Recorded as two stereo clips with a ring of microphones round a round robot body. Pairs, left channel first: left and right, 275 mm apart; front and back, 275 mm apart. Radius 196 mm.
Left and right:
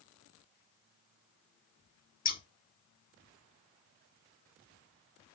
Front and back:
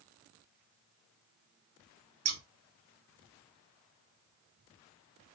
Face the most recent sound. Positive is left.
turn(degrees=150)